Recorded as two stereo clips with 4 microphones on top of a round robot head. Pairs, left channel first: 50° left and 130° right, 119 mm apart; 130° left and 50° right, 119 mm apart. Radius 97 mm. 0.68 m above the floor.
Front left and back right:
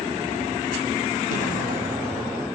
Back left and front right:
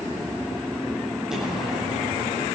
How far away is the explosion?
About 4.5 m.